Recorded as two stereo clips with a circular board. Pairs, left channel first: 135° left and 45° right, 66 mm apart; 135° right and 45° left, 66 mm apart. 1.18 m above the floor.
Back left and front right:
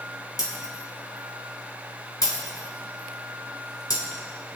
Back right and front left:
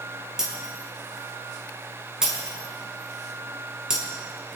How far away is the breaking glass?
About 3.5 m.